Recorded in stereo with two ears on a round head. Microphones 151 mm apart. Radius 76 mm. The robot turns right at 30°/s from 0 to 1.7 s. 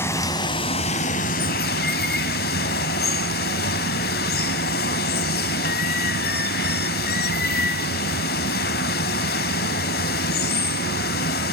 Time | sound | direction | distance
0.0 | running water | 15° left | 1.3 m